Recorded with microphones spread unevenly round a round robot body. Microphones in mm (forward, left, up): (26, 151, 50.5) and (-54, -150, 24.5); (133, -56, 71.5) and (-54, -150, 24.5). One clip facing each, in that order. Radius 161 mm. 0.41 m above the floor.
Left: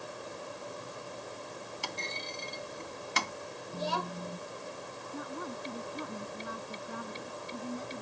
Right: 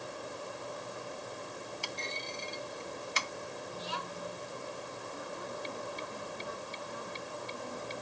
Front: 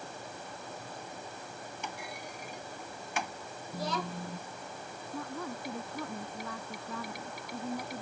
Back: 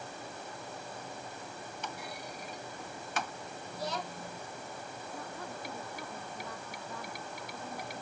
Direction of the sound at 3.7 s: 30° left.